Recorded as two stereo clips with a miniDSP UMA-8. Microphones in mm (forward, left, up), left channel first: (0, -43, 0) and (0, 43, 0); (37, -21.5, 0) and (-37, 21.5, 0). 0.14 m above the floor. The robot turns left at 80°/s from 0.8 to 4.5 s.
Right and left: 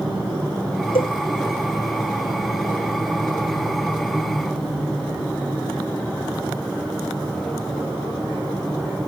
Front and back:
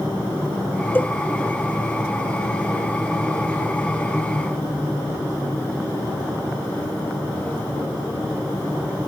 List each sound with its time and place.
0.9 s a cowbell: 100° right; by 1.1 s 115° right